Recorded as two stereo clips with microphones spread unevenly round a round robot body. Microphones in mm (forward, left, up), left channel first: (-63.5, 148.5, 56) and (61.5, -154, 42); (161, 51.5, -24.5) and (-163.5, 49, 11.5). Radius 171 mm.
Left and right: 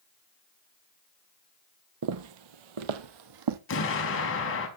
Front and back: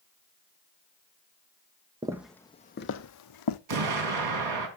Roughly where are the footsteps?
Right.